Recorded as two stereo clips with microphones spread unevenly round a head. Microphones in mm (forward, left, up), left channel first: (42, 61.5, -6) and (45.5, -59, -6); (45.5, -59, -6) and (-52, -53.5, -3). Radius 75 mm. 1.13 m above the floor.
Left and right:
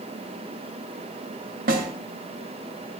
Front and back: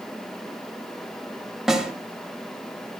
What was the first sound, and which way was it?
A snare drum, 95° right.